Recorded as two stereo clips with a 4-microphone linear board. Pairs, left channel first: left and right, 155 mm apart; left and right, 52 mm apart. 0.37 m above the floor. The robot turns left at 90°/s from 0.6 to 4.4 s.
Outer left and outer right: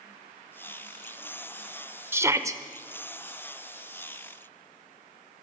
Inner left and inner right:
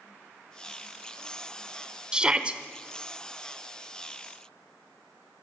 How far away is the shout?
About 0.8 m.